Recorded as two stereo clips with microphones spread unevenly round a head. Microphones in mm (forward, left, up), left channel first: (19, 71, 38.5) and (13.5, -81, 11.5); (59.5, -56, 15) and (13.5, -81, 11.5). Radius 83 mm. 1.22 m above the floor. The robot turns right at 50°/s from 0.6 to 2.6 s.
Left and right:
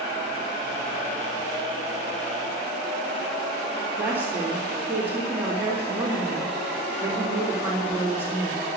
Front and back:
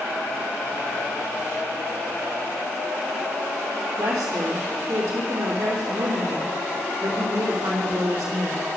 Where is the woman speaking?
175° right, 2.5 m.